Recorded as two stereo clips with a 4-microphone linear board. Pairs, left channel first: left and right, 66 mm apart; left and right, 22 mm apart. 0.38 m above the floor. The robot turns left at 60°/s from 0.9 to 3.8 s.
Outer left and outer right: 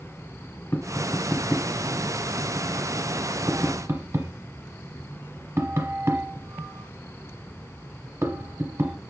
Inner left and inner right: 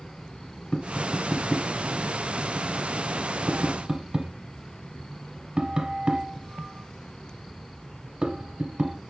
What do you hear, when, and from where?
0.7 s tapping: 35° left (ahead or behind), 0.9 m; by 9.0 s 40° right (ahead or behind), 0.9 m